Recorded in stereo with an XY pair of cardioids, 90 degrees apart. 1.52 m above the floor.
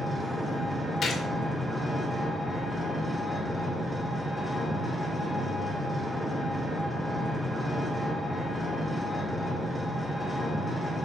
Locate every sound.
0.0 s an engine running: 5° right, 2.5 m
1.0 s a gunshot: 60° left, 1.8 m